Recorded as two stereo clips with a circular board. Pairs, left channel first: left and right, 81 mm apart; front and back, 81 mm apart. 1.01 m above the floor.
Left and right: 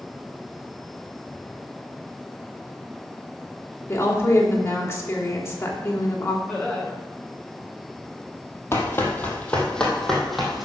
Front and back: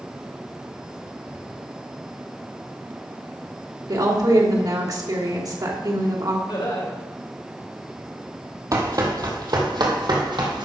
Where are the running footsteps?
145° left, 2 m; by 10.7 s 175° right, 2.5 m.